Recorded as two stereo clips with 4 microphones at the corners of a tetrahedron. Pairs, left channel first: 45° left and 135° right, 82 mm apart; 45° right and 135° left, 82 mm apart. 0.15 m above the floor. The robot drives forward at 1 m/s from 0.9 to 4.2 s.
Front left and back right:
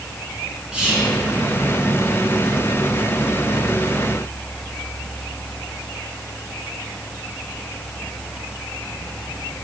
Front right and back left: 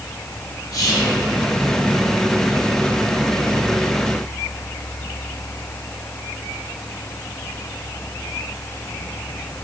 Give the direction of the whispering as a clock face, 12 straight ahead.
2 o'clock.